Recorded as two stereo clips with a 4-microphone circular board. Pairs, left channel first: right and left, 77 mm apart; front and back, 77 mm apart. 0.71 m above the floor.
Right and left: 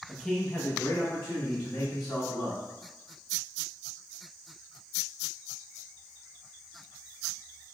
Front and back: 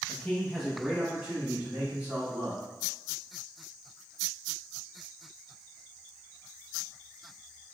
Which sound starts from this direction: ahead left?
A man speaking, at 0.1 s.